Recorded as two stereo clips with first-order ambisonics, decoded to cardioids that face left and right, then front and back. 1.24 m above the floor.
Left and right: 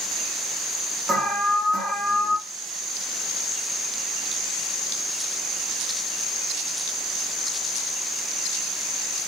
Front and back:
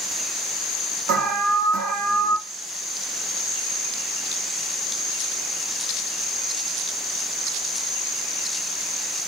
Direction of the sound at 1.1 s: 155° right.